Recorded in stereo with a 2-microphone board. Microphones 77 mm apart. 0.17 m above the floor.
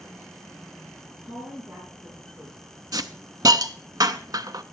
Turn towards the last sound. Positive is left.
turn(degrees=-55)  # may be behind; listen again after turning